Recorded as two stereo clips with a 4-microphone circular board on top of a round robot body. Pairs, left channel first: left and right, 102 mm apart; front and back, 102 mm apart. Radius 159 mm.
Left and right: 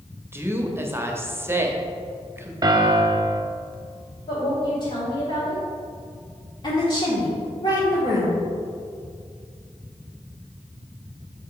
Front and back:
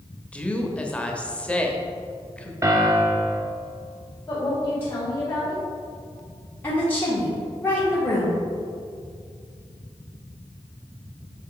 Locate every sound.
0.3 s a woman speaking: 60° right, 1.2 m
2.6 s a piano: 130° right, 0.9 m
4.3 s a woman speaking: 65° left, 2 m
6.6 s a woman speaking: 65° left, 1.8 m